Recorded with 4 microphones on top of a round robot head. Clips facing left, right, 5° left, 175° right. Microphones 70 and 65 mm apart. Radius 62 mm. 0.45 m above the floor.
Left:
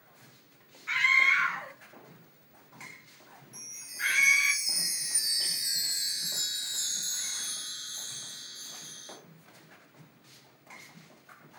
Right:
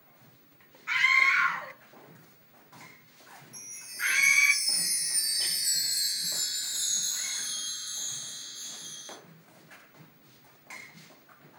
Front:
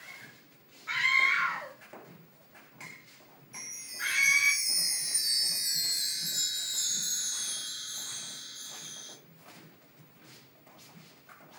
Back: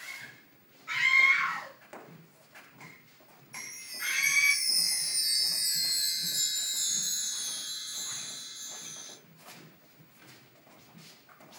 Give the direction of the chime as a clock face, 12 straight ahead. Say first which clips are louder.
Right 1 dB, even; 11 o'clock.